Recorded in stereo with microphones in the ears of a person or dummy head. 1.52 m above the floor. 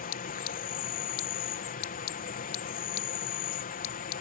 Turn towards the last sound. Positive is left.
turn(degrees=40)  # may be behind; listen again after turning